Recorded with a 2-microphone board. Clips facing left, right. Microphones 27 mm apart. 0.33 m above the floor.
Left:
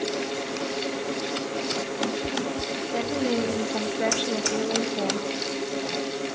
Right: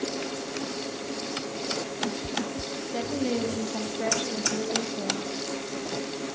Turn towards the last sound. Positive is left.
turn(degrees=45)  # may be behind; listen again after turning